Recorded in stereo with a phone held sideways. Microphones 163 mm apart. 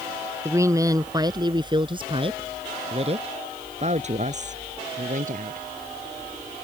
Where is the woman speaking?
15° right (ahead or behind); by 5.6 s 50° right (ahead or behind).